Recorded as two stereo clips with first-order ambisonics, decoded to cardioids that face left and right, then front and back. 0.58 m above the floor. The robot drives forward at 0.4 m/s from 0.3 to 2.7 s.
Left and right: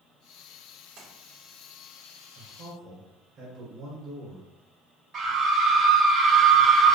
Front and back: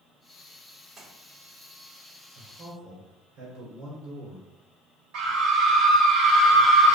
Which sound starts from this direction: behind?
A scream, at 5.1 s.